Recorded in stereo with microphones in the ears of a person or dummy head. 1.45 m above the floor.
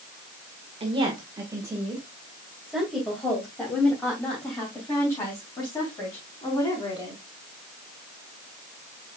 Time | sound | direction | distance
0.8 | a woman speaking | 25° right (ahead or behind) | 1.6 m